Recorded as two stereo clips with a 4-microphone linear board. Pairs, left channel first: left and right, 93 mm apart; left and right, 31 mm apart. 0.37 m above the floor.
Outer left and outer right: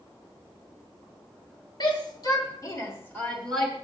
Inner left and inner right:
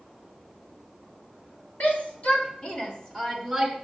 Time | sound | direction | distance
1.8 | a shout | 55° left (ahead or behind) | 1.9 m